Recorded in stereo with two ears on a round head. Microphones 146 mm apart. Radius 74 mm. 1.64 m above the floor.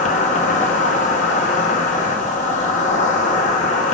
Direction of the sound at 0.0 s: 50° left (ahead or behind).